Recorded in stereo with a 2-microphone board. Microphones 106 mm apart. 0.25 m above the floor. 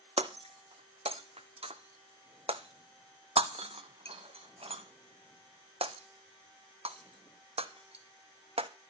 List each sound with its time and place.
0.2 s breaking glass: 70° right (ahead or behind), 0.9 m